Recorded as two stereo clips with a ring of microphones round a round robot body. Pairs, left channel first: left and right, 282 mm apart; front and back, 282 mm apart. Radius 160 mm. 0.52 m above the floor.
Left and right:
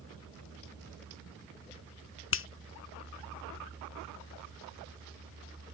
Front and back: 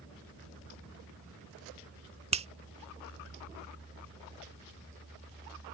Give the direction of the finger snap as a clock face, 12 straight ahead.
8 o'clock.